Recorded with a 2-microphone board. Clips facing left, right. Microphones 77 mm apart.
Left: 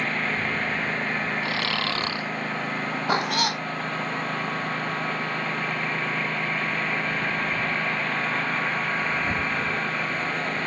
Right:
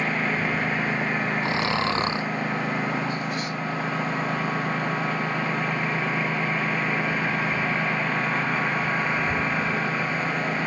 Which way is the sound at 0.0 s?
5° right (ahead or behind).